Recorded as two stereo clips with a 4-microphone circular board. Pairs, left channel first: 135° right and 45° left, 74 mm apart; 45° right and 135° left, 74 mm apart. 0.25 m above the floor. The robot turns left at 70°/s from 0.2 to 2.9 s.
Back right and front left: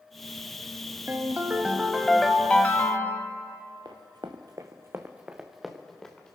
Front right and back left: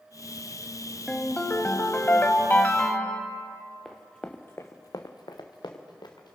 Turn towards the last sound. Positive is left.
turn(degrees=-55)